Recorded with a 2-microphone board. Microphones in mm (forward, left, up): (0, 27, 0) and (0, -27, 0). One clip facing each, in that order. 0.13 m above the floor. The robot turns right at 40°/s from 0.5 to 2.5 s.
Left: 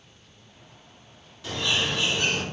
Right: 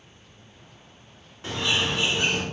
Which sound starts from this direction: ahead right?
A bird, at 1.4 s.